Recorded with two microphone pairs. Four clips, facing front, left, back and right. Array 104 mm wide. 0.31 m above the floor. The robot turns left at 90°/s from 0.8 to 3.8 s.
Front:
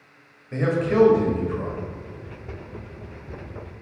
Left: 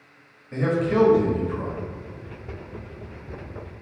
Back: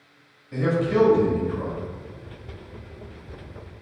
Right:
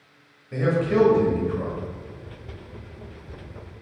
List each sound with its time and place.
0.5 s a man speaking: 10° right, 1.1 m; by 1.8 s 95° right, 1.1 m